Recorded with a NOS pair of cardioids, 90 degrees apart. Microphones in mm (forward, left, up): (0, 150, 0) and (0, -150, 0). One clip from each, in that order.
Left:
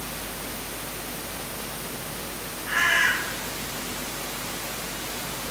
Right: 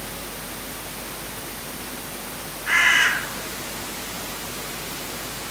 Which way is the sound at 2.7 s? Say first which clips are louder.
Right 4 dB; 65° right.